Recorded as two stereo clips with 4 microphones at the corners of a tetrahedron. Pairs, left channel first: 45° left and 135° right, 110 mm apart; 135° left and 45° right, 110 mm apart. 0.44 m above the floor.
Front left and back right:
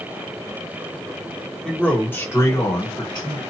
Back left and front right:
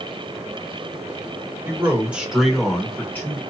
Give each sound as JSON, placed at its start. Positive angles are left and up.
{"t": 1.6, "sound": "a man speaking", "azimuth_deg": -30, "distance_m": 1.0}